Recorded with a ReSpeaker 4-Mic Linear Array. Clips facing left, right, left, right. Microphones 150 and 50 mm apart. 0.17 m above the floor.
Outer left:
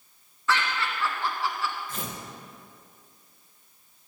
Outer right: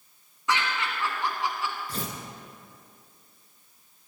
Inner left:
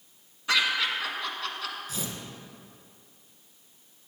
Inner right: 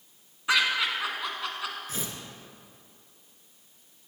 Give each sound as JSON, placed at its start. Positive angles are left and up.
{"t": 0.5, "sound": "laughter", "side_deg": -20, "distance_m": 1.4}
{"t": 1.9, "sound": "tearing paper", "side_deg": -40, "distance_m": 1.1}